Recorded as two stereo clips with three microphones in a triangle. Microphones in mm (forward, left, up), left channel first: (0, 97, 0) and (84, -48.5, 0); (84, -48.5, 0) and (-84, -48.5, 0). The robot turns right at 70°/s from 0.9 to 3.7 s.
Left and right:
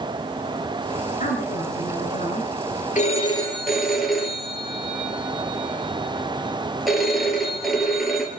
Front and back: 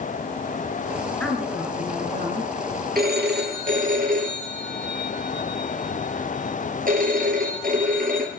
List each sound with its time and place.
1.2 s a woman speaking: 80° left, 3.5 m; by 2.5 s 175° left, 3.5 m
3.0 s a phone ringing: 160° left, 3 m; by 8.3 s 150° right, 3 m